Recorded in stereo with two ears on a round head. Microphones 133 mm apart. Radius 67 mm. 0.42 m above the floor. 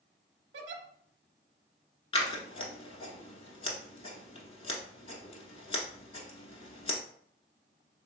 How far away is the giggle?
About 0.6 m.